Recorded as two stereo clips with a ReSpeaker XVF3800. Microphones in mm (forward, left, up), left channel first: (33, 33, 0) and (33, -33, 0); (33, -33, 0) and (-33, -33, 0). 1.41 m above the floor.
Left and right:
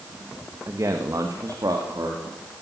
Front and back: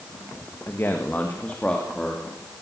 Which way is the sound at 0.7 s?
50° right.